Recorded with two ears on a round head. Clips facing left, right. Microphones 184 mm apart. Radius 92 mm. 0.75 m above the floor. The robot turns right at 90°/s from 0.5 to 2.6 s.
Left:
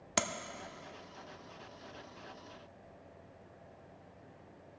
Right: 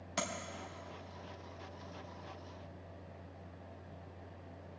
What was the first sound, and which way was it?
Tapping, 65° left (ahead or behind).